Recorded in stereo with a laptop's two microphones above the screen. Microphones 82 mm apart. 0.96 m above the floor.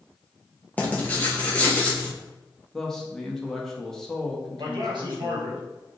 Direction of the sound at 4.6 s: 70° right (ahead or behind).